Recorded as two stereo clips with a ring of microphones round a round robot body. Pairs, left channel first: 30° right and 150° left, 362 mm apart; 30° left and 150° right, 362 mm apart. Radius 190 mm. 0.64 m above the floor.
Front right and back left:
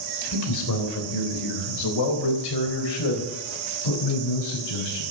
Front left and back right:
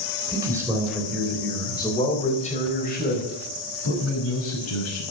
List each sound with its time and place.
0.3 s a man speaking: 70° right, 3.5 m; by 5.0 s 20° right, 6 m